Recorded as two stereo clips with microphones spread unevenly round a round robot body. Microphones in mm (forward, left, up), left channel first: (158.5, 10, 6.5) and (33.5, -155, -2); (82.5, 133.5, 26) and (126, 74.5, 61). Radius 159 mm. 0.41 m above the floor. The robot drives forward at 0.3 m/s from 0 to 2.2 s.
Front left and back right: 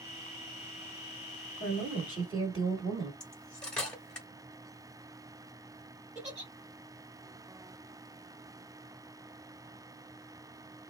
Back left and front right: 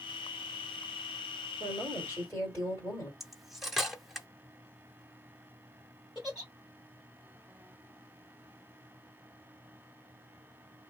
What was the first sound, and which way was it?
A woman speaking, straight behind.